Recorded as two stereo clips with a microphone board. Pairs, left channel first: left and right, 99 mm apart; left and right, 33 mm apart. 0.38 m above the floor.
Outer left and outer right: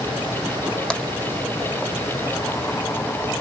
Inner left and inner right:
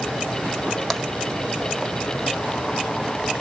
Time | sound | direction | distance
0.9 | tapping | 10° left (ahead or behind) | 1.1 m